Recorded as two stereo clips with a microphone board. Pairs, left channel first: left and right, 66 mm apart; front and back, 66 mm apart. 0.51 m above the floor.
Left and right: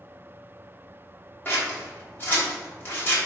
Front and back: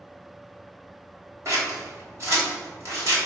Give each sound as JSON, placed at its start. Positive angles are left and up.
{"t": 1.4, "sound": "scissors", "azimuth_deg": 145, "distance_m": 3.0}